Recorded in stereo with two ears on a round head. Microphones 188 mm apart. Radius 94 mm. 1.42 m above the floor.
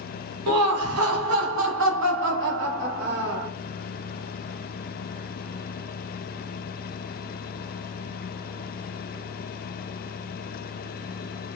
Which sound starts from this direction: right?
Laughter, at 0.5 s.